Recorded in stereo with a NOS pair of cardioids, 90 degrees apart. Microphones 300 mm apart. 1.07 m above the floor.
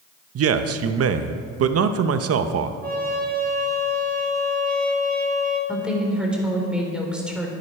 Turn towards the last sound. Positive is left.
turn(degrees=-5)